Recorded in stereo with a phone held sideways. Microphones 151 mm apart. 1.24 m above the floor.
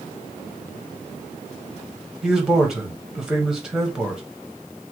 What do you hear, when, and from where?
2.2 s a man speaking: 5° right (ahead or behind), 0.9 m